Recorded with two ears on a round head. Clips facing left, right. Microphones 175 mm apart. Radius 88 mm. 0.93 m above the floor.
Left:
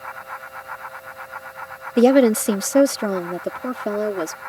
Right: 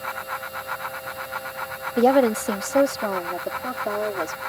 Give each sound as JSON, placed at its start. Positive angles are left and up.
{"t": 2.0, "sound": "a woman speaking", "side_deg": 30}